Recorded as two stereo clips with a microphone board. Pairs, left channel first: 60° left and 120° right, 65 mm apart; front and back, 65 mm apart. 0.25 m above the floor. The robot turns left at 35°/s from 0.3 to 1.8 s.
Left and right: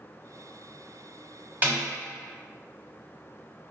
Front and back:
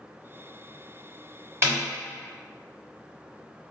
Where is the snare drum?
160° right, 1.7 m; by 1.8 s 165° right, 1.7 m.